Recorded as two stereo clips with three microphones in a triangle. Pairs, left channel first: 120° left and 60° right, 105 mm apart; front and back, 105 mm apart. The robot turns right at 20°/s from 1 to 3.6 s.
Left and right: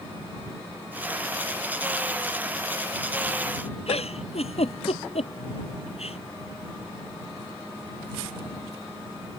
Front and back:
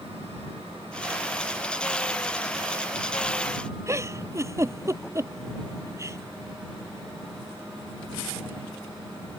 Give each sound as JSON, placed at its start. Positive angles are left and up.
{"t": 3.9, "sound": "a giggle", "azimuth_deg": 120}